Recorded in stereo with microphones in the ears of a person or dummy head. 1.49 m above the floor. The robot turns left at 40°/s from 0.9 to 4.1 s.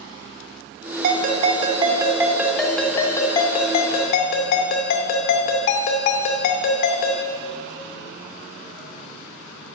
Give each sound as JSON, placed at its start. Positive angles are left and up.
{"t": 1.0, "sound": "a ringtone", "azimuth_deg": -110, "distance_m": 1.8}